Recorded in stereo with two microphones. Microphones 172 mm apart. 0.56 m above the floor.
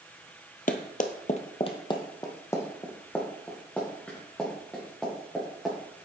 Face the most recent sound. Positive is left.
turn(degrees=0)  # may be behind; listen again after turning